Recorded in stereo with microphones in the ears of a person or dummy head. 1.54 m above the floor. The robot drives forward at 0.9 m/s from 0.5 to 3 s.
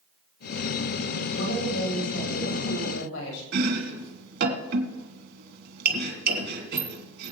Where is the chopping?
65° right (ahead or behind), 3 m.